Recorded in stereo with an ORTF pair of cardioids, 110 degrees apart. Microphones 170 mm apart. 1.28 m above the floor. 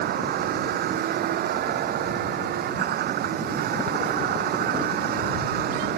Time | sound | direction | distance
0.0 | a vehicle | 65° right | ?